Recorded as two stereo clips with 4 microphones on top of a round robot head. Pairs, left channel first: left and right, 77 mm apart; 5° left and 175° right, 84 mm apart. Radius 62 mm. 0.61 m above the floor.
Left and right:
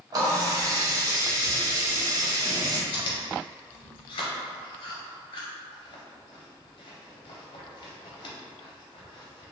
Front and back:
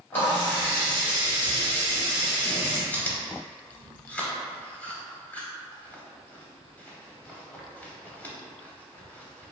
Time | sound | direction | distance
0.1 | a running tap | 60° right | 1.2 m
2.9 | chewing | 80° left | 0.7 m